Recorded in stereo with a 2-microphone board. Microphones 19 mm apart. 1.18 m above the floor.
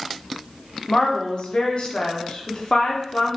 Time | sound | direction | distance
0.9 | a woman speaking | 50° left (ahead or behind) | 0.8 m